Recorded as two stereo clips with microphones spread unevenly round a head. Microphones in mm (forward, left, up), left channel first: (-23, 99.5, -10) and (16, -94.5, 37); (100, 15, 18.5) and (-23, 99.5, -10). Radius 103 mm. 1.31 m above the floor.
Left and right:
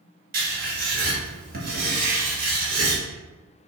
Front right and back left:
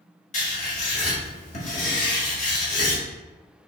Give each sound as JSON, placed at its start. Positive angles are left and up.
{"t": 0.3, "sound": "writing", "azimuth_deg": -55, "distance_m": 1.6}